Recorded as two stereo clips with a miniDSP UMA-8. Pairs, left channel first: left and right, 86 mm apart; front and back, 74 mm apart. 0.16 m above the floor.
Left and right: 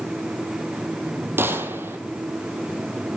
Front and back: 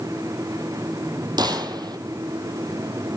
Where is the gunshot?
155° right, 1.6 m.